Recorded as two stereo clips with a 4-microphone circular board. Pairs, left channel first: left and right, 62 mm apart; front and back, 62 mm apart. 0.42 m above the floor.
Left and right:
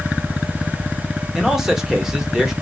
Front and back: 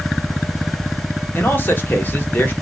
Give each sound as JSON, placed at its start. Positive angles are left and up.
{"t": 1.4, "sound": "a man speaking", "azimuth_deg": -10, "distance_m": 0.8}